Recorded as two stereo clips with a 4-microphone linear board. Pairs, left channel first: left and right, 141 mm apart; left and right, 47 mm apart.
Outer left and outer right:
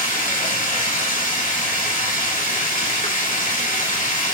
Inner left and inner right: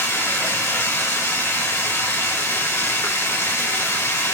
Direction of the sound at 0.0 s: 75° left (ahead or behind).